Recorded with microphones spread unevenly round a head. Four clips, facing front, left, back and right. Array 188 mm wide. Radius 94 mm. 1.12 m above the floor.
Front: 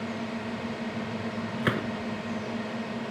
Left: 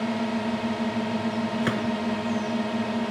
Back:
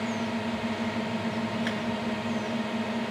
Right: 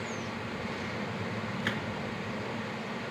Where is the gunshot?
30° left.